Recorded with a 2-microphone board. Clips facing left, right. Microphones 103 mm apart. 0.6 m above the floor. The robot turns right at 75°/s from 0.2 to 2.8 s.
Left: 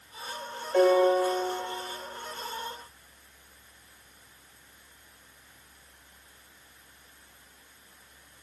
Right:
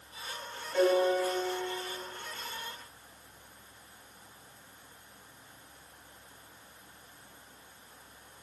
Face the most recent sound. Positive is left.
turn(degrees=-155)